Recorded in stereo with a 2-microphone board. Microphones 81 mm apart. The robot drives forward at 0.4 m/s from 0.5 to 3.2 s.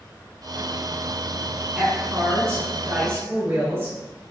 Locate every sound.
1.8 s a woman speaking: 30° right (ahead or behind), 1.6 m